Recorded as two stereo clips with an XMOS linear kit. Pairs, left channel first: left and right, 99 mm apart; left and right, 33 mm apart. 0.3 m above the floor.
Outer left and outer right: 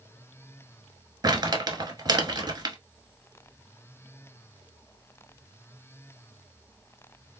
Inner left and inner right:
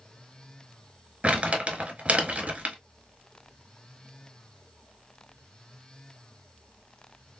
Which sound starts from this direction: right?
Crumpling, at 1.2 s.